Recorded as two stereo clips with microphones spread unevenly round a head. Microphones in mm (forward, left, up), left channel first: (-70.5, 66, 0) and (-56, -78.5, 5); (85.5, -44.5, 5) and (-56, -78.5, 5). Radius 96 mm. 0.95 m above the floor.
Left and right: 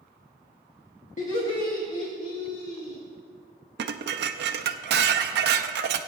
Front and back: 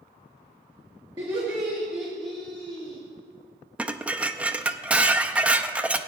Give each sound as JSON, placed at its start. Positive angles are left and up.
{"t": 1.2, "sound": "laughter", "azimuth_deg": 125, "distance_m": 1.7}
{"t": 3.8, "sound": "dishes clattering", "azimuth_deg": -85, "distance_m": 0.6}